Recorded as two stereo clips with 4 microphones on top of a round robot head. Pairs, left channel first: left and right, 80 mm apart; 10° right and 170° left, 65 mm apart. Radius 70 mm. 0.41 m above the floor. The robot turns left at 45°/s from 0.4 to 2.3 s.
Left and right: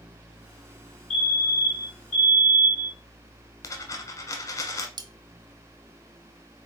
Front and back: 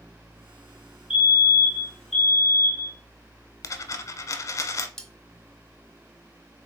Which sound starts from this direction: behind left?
A fire alarm, at 1.1 s.